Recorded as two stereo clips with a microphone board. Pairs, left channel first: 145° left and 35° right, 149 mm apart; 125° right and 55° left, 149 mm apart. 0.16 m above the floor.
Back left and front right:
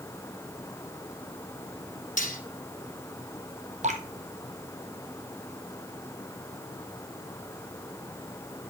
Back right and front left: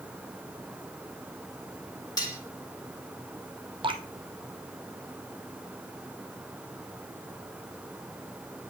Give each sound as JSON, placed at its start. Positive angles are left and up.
{"t": 2.2, "sound": "cutlery clinking", "azimuth_deg": 170, "distance_m": 2.5}
{"t": 3.8, "sound": "dripping", "azimuth_deg": 0, "distance_m": 1.5}